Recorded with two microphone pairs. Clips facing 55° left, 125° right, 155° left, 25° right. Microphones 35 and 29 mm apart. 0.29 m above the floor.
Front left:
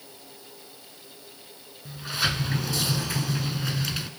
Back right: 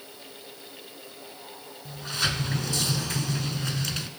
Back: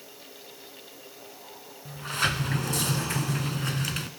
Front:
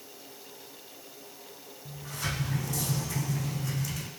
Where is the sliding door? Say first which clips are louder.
Front left 1 dB, back 9 dB; 135° left, 0.6 m.